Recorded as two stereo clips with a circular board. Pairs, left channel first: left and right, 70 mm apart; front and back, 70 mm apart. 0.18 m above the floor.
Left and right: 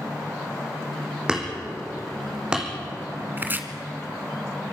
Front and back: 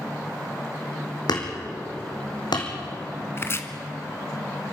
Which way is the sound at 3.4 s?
40° right.